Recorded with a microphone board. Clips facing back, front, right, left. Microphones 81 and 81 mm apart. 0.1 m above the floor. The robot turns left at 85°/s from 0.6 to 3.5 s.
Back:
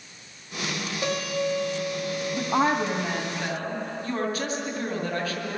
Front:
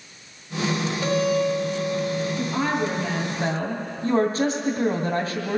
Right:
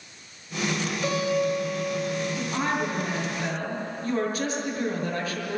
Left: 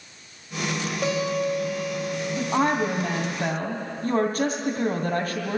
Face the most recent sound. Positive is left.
turn(degrees=55)